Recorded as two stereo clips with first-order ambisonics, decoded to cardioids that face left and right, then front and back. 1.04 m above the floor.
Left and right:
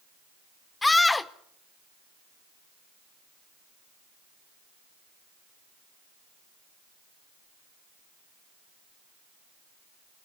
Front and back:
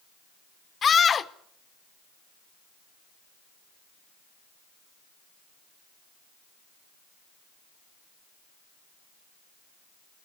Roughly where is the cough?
No cough in this recording.